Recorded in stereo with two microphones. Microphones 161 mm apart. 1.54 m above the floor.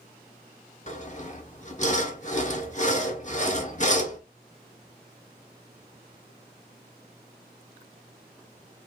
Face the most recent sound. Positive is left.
turn(degrees=50)  # may be behind; listen again after turning